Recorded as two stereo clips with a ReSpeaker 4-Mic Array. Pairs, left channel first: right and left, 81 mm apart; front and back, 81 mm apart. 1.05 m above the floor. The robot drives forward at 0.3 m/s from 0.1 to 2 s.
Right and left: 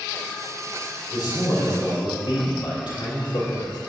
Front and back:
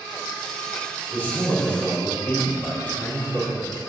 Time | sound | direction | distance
1.1 | a man speaking | 65° right | 3.5 m